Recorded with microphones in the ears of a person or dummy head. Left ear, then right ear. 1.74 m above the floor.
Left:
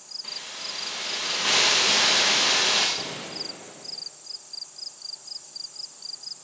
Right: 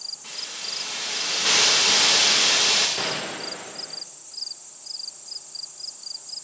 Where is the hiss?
5° left (ahead or behind), 1.2 m.